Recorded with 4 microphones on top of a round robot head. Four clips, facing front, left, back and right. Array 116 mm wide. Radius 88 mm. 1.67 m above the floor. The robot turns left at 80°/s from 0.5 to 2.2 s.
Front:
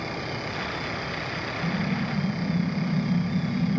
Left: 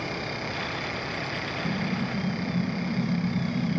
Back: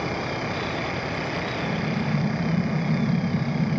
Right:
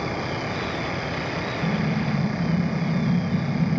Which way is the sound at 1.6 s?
90° right.